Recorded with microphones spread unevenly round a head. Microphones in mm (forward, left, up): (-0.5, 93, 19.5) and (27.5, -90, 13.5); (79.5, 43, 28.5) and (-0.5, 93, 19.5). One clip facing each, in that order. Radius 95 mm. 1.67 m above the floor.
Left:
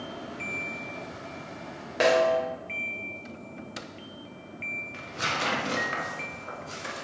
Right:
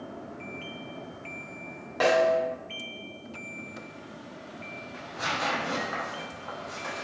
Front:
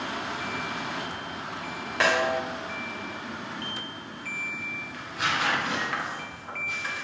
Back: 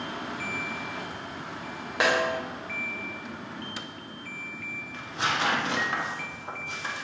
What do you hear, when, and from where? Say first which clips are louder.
2.0 s a snare drum: even, front 1 dB; 80° left, 1.0 m
4.9 s tearing paper: even, even; 110° left, 0.7 m